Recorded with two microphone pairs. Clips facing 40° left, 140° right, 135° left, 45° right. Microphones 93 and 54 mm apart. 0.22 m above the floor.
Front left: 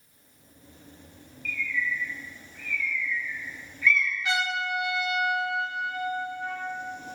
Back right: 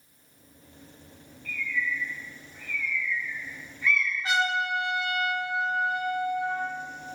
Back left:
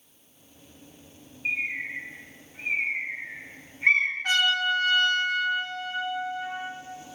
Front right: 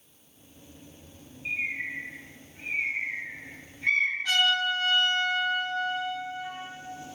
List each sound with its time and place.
1.4 s a bird: 165° left, 3 m
4.2 s a trumpet: 170° left, 4 m